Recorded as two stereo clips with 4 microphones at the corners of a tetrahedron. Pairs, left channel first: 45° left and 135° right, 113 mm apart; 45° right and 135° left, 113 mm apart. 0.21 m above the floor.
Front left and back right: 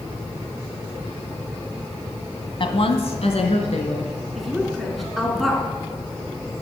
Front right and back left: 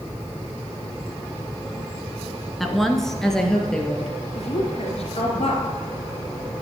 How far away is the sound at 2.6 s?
About 1.5 m.